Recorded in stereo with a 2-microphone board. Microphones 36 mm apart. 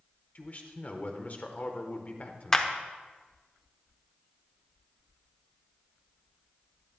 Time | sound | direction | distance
0.3 | a man speaking | 45° left (ahead or behind) | 1.1 m
2.5 | a clap | 15° left (ahead or behind) | 0.8 m